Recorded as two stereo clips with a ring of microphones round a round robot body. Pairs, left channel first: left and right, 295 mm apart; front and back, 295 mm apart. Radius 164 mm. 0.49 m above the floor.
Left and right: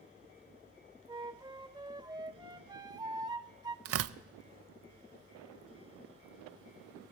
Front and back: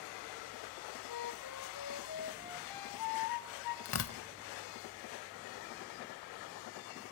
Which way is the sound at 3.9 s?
45° right.